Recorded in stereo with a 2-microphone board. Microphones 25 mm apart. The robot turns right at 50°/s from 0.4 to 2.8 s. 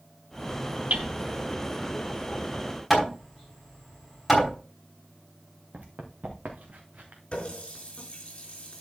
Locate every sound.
0.9 s hammering: 70° right (ahead or behind), 3 m; by 1.1 s 75° right (ahead or behind), 3 m
2.9 s hammering: centre (ahead or behind), 5 m
5.7 s running footsteps: 70° right (ahead or behind), 2.5 m; by 7.2 s 75° right (ahead or behind), 2.5 m
7.3 s a running tap: 40° left (ahead or behind), 4.5 m